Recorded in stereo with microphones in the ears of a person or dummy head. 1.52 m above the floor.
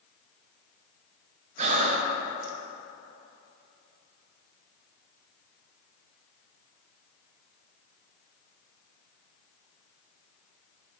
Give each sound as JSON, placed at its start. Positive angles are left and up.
{"t": 1.6, "sound": "breathing", "side_deg": -40, "distance_m": 0.6}